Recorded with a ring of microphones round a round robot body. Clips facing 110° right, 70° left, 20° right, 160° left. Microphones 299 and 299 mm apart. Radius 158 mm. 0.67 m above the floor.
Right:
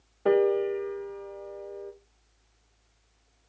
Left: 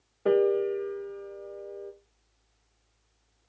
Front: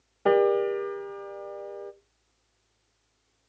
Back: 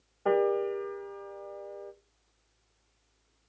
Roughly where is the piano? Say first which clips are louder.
Even, front 5 dB; ahead right.